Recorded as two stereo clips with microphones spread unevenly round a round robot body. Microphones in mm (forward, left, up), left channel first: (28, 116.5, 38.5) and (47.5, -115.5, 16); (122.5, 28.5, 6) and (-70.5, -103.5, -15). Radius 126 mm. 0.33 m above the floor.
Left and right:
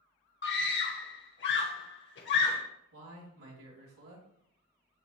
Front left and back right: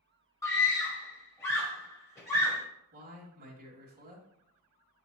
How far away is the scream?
About 1.4 m.